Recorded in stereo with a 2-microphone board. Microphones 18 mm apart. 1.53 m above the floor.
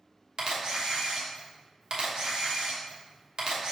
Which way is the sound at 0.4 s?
50° right (ahead or behind).